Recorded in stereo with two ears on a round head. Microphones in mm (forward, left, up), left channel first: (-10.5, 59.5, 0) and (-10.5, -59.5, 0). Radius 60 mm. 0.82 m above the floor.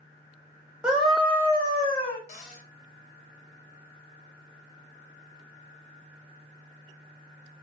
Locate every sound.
0.8 s a scream: 10° right (ahead or behind), 0.8 m; by 2.2 s 45° left (ahead or behind), 1.0 m
2.3 s a cupboard door: 60° left (ahead or behind), 1.1 m